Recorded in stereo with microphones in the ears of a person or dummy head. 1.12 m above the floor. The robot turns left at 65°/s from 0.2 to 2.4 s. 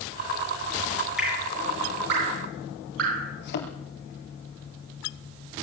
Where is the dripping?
Centre (ahead or behind), 10 m; by 3.3 s 80° right, 10 m.